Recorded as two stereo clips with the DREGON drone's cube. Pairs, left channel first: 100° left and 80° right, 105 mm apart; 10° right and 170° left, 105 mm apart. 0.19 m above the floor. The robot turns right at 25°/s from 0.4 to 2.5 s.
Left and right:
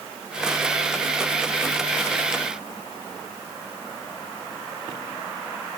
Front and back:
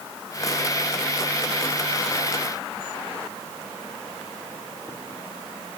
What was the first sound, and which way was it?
Only background noise.